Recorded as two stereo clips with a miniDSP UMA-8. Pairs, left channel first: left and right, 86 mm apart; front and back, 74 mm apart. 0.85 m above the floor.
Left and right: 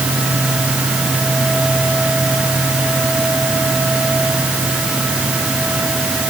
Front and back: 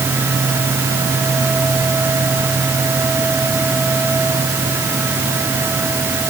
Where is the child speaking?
I don't hear a child speaking.